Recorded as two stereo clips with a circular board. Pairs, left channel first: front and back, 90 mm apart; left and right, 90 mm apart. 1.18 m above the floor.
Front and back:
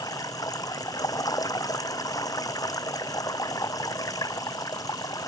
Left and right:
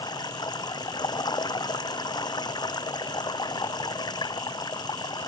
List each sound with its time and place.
0.0 s running water: 50° left